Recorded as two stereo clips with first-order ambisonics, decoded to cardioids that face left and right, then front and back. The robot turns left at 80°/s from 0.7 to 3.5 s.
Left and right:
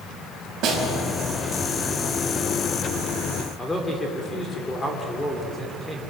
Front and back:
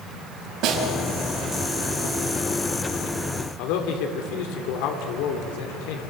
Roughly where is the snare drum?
Behind right.